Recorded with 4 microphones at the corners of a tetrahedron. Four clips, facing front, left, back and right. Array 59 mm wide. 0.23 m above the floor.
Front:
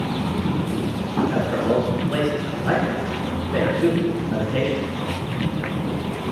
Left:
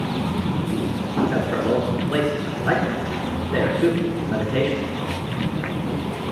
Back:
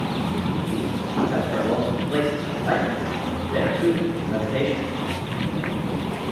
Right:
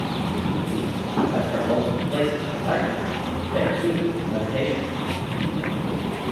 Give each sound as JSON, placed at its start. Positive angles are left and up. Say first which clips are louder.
{"t": 1.3, "sound": "a man speaking", "louder": "left 1 dB, front 2 dB", "azimuth_deg": 75, "distance_m": 3.5}